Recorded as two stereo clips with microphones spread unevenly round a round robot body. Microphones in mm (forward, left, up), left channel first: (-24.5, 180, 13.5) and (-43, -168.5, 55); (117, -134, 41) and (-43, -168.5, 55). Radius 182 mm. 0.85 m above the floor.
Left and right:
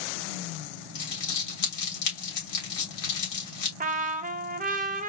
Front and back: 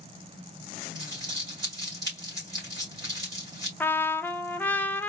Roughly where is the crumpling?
Behind left.